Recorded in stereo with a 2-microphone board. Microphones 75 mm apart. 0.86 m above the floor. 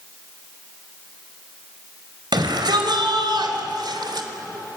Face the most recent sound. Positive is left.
turn(degrees=-75)  # may be behind; listen again after turning